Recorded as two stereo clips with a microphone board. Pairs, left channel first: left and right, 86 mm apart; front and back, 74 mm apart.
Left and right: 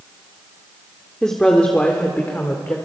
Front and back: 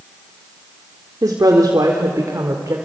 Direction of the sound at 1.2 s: 170° left.